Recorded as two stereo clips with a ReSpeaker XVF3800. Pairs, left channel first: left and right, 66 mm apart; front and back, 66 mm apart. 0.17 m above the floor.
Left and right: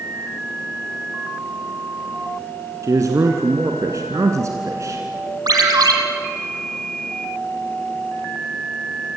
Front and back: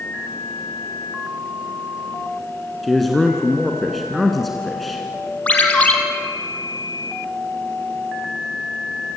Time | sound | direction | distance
2.8 | a man speaking | 90° right | 2.0 m
5.5 | a ringtone | 70° right | 3.5 m